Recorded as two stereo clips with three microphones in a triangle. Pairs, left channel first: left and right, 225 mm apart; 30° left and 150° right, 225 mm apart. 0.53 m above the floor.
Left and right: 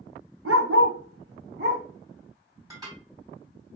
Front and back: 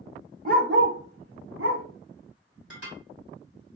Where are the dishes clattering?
165° right, 2 m.